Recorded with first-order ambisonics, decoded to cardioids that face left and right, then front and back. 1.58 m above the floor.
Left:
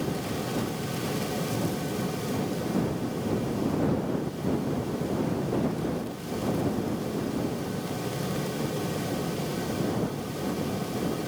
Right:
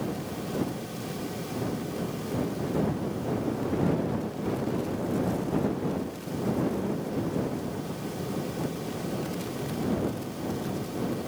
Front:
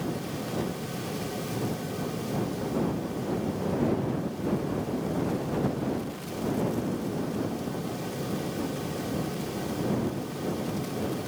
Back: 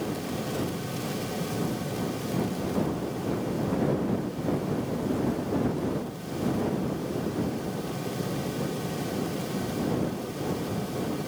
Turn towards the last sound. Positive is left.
No sound to turn to.